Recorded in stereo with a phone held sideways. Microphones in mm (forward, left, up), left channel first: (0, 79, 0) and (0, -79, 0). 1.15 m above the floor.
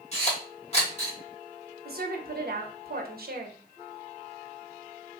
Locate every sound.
0.1 s a camera shutter: 40° left (ahead or behind), 1.8 m
1.9 s a woman speaking: 65° right (ahead or behind), 0.8 m